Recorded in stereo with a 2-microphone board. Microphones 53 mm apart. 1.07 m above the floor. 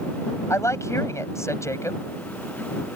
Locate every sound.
0.5 s a woman speaking: 65° left (ahead or behind)